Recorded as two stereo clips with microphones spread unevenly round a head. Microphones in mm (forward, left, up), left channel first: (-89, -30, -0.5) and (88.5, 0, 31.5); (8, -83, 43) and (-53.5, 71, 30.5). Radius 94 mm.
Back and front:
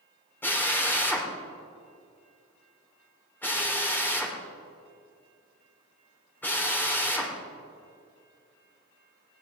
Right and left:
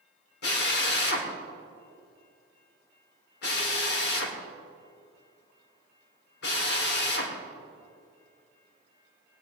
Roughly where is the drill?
Right.